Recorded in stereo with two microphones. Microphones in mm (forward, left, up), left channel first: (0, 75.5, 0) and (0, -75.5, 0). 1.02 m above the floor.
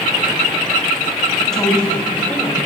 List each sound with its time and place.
1.4 s a woman speaking: 5° left (ahead or behind), 5.5 m; by 2.6 s 15° left (ahead or behind), 4.5 m